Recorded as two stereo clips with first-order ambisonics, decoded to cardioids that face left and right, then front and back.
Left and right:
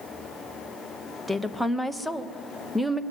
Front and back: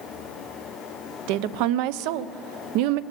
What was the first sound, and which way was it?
A woman speaking, 175° right.